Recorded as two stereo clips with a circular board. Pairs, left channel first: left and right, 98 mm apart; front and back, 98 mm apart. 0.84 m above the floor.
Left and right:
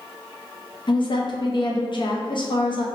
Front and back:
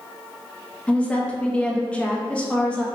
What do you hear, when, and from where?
0.9 s a woman speaking: 75° left, 0.6 m